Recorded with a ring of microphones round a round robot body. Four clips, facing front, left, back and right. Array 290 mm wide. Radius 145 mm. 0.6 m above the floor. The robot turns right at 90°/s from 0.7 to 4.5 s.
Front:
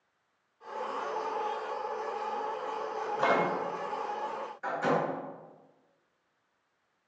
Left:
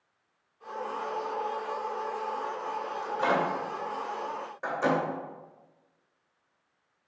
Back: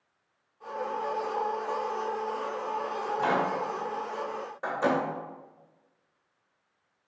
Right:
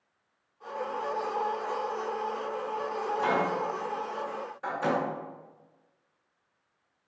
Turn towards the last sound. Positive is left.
turn(degrees=140)